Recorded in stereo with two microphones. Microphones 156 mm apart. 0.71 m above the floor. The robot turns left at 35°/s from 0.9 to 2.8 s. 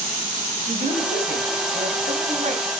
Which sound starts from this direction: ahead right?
A man speaking, at 0.7 s.